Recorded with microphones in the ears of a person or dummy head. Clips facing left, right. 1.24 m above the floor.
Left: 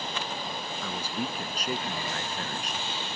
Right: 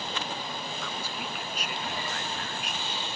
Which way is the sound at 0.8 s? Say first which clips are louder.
Left 4 dB; 35° left (ahead or behind).